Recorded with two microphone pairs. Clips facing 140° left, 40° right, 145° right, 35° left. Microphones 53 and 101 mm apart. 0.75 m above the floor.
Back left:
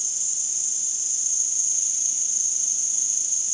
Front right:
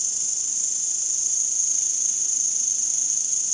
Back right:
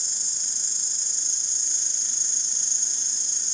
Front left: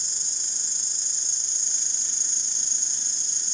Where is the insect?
60° right, 1.6 m.